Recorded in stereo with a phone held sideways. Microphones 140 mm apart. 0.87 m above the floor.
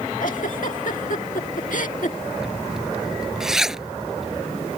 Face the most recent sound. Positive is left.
turn(degrees=-5)  # may be behind; listen again after turning